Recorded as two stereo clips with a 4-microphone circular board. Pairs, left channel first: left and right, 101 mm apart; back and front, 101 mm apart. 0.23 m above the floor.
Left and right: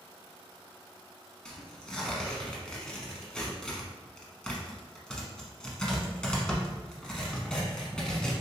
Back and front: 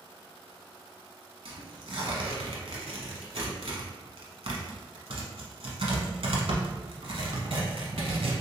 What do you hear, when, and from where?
1.4 s tearing paper: 10° left, 0.7 m